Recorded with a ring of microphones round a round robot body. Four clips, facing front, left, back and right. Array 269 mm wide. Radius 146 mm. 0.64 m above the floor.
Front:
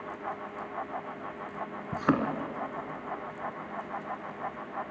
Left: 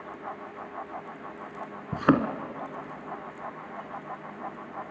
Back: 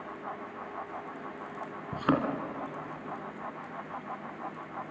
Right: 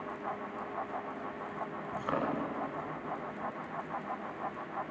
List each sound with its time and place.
1.9 s a thud: 80° left, 1.8 m